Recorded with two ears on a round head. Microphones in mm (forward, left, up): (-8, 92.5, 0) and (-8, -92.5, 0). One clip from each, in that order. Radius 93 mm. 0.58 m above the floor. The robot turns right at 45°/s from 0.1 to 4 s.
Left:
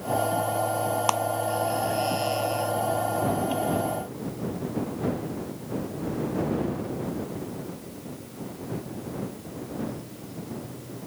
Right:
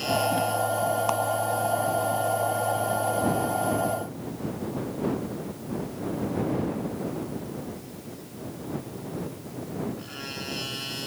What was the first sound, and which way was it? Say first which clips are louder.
A clap: left 2 dB; 35° left (ahead or behind).